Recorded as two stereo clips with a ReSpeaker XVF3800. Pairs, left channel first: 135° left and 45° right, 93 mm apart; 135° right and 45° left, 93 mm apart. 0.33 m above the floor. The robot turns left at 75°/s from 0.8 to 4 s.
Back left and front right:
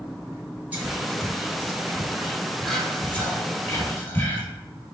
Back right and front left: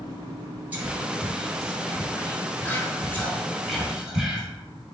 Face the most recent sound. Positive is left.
turn(degrees=115)